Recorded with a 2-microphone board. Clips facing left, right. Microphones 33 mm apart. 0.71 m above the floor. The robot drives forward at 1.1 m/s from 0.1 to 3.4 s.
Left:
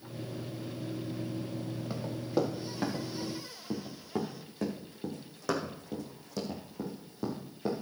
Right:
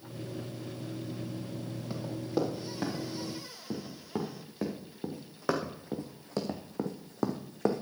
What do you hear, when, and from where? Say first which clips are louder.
1.9 s running footsteps: left 1 dB; 10° left (ahead or behind), 3.5 m; by 7.8 s 70° right (ahead or behind), 2 m